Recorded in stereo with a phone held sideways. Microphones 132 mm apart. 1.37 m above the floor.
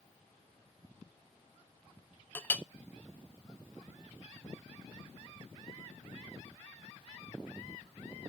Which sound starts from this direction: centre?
A clink, at 2.4 s.